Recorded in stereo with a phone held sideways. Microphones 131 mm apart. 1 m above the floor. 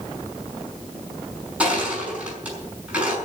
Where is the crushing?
10° right (ahead or behind), 5.5 m.